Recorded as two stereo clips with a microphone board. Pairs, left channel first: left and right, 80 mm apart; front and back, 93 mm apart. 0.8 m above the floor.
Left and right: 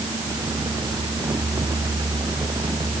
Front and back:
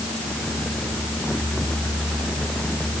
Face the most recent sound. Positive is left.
No sound to turn to.